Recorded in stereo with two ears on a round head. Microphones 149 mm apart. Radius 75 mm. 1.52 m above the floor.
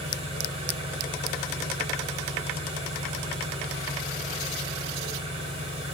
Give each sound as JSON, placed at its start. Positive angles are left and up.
{"t": 0.0, "sound": "an engine running", "side_deg": -35, "distance_m": 3.5}